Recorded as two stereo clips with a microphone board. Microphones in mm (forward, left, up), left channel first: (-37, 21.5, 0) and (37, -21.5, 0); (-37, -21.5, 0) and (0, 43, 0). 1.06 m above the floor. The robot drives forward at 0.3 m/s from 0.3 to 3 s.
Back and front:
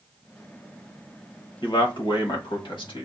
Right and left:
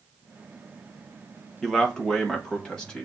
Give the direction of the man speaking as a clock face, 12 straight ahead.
7 o'clock.